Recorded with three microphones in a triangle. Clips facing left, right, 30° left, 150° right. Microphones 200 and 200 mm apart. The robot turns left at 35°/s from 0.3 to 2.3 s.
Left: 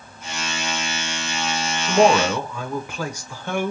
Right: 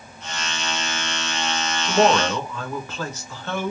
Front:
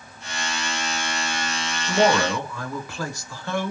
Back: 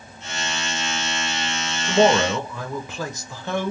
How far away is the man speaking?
About 0.9 m.